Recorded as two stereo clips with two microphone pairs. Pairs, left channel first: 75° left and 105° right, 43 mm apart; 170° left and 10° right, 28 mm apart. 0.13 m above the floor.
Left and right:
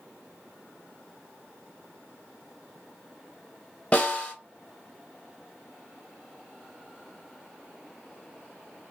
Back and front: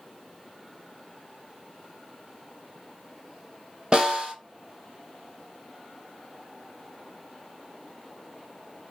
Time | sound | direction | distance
3.9 | a snare drum | 35° left | 1.6 m